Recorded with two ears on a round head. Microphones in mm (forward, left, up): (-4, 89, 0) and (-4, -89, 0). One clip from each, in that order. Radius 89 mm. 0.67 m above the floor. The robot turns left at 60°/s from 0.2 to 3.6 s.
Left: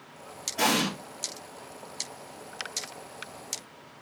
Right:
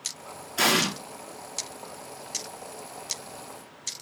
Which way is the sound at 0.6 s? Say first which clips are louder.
Right 3 dB; 80° right.